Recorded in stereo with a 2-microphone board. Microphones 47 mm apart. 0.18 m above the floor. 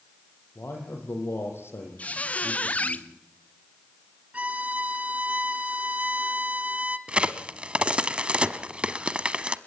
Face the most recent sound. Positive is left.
turn(degrees=-25)  # may be behind; listen again after turning